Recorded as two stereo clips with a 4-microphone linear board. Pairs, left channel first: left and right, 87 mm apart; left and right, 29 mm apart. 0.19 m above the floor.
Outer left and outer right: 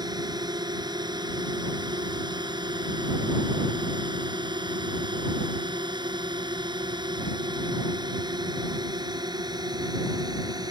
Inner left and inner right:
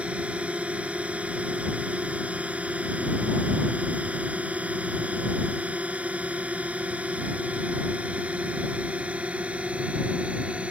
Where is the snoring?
I don't hear snoring.